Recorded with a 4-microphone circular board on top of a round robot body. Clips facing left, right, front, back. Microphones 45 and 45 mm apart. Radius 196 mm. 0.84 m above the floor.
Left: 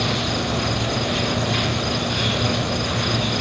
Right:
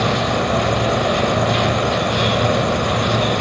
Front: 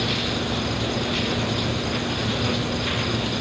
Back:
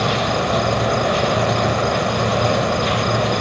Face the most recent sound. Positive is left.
turn(degrees=-145)